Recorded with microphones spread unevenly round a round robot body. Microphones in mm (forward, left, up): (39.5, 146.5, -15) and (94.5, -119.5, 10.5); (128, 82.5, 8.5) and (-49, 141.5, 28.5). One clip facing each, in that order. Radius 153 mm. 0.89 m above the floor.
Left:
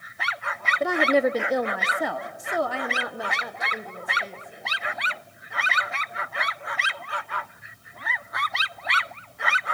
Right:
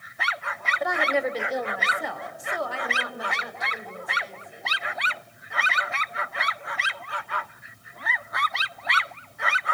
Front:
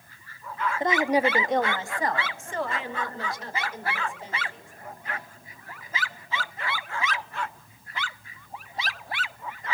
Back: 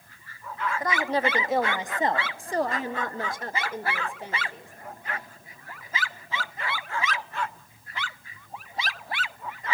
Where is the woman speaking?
45° left, 1.4 m; by 4.7 s 130° left, 3.5 m.